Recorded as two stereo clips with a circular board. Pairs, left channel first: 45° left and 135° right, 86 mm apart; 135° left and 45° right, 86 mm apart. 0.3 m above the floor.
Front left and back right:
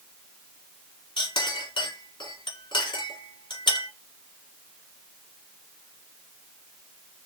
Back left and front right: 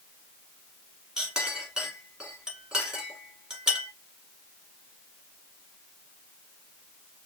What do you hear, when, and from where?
1.2 s a clink: 35° left, 1.8 m